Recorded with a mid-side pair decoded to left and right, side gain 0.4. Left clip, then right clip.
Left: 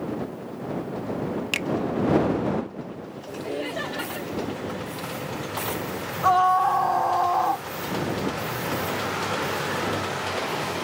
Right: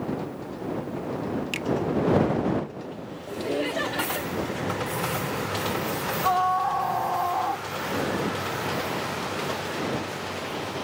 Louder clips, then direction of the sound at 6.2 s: Left 5 dB; 30° left.